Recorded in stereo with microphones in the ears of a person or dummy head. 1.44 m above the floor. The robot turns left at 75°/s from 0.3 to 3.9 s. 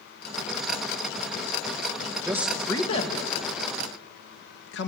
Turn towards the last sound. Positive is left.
turn(degrees=70)  # may be behind; listen again after turning